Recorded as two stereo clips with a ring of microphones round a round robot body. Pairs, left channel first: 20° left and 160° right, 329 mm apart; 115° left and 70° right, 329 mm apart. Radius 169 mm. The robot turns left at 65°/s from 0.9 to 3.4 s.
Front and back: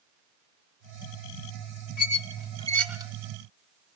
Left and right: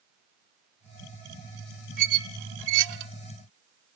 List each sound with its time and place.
2.0 s a squeak: 10° right, 1.1 m; by 3.1 s 85° right, 1.1 m